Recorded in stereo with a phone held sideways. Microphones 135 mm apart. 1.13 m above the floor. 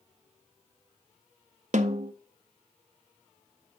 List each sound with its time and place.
1.7 s a snare drum: 65° right (ahead or behind), 0.7 m